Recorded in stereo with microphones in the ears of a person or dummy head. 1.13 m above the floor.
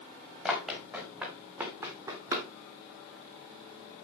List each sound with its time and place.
0.5 s running footsteps: 5° right (ahead or behind), 4.5 m; by 2.5 s 20° right (ahead or behind), 3 m